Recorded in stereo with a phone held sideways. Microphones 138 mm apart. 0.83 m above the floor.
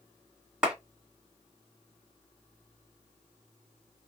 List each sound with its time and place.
0.6 s a clap: 5° right (ahead or behind), 2 m